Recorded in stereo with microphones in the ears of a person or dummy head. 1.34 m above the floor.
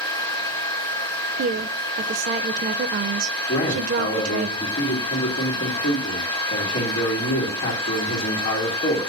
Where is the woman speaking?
50° right (ahead or behind), 0.6 m.